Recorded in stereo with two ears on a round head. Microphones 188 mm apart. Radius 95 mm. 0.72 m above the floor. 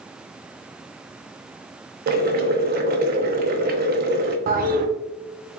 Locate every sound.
2.1 s boiling: 45° right (ahead or behind), 0.6 m
4.5 s a toilet flushing: 45° right (ahead or behind), 0.6 m